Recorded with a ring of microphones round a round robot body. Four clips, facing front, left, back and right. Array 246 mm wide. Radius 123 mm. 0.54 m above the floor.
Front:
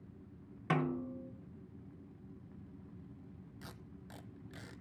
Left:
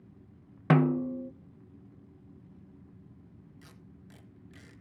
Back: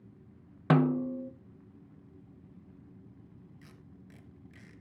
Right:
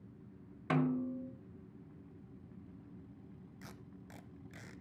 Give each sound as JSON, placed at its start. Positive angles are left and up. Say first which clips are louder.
{"t": 0.7, "sound": "a snare drum", "louder": "left 8 dB, back 9 dB", "azimuth_deg": 130, "distance_m": 0.6}
{"t": 3.6, "sound": "tape being pulled", "louder": "right 1 dB, front 1 dB", "azimuth_deg": -35, "distance_m": 1.2}